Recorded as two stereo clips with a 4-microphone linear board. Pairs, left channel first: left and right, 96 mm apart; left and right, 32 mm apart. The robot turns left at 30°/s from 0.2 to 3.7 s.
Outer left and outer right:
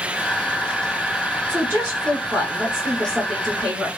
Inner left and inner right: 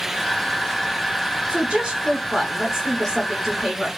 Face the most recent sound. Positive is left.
turn(degrees=5)  # may be behind; listen again after turning